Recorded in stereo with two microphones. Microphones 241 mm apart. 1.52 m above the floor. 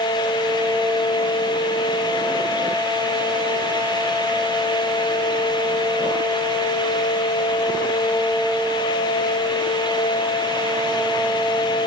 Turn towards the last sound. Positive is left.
No sound to turn to.